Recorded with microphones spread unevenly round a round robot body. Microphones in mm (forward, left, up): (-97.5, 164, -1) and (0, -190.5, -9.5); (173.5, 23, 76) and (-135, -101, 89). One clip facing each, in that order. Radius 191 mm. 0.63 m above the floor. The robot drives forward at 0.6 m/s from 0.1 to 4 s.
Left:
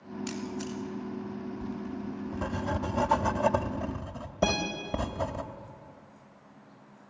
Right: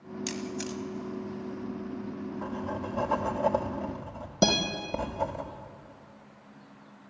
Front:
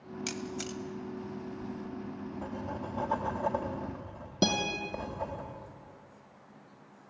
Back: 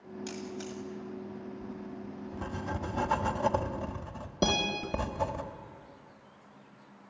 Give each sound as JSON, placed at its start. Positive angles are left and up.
{"t": 0.3, "sound": "a camera shutter", "azimuth_deg": -20, "distance_m": 2.0}
{"t": 1.6, "sound": "writing", "azimuth_deg": 105, "distance_m": 0.6}
{"t": 4.4, "sound": "a guitar", "azimuth_deg": -45, "distance_m": 4.5}